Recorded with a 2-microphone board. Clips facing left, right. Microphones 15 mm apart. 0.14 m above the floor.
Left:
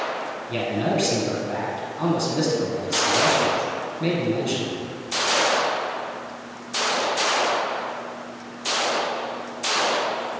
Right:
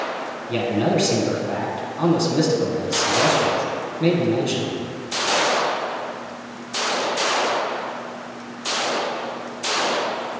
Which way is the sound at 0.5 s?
10° right (ahead or behind).